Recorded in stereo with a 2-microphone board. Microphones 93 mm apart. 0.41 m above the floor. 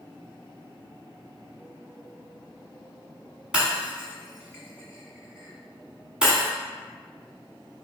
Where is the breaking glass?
10° right (ahead or behind), 1.3 m.